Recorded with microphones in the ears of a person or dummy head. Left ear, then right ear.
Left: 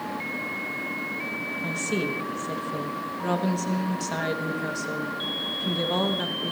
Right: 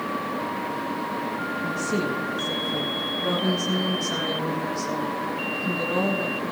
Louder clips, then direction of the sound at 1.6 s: Right 1 dB; 35° left (ahead or behind).